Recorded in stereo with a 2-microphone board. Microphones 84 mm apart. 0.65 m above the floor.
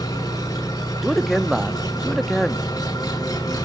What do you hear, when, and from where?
0.0 s an engine running: 45° left (ahead or behind), 6 m
1.0 s a man speaking: centre (ahead or behind), 0.8 m